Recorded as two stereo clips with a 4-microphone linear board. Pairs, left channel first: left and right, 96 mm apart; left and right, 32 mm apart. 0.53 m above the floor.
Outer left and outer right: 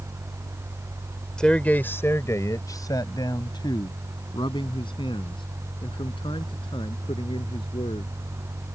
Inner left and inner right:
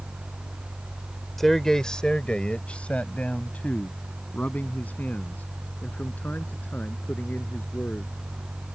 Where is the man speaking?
10° left (ahead or behind); by 8.1 s 65° left (ahead or behind).